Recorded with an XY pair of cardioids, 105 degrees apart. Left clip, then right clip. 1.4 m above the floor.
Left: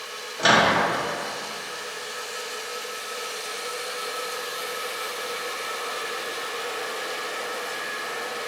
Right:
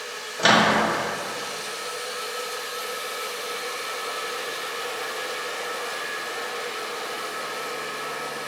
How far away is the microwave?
About 0.6 m.